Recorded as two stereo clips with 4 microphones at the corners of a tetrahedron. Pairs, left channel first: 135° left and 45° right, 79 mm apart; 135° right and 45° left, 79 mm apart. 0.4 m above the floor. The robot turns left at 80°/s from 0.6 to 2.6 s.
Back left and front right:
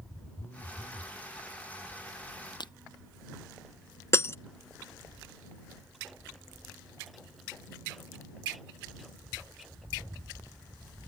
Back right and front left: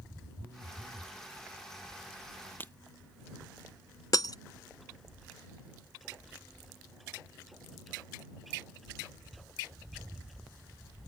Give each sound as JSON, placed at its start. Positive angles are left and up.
{"t": 0.4, "sound": "a phone buzzing", "azimuth_deg": 80}
{"t": 2.6, "sound": "breaking glass", "azimuth_deg": 160}
{"t": 4.1, "sound": "breaking glass", "azimuth_deg": -170}